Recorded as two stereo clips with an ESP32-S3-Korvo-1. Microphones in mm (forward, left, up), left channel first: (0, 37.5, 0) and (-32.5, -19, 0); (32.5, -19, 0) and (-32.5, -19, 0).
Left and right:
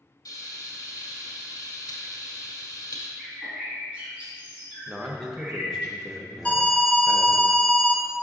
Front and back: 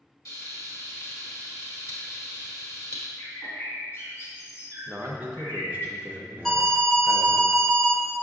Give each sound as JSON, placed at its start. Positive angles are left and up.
{"t": 0.2, "sound": "frying", "azimuth_deg": 40, "distance_m": 1.4}
{"t": 3.2, "sound": "a bird", "azimuth_deg": -50, "distance_m": 2.0}
{"t": 4.9, "sound": "a man speaking", "azimuth_deg": 150, "distance_m": 0.6}
{"t": 6.5, "sound": "an alarm", "azimuth_deg": 85, "distance_m": 0.9}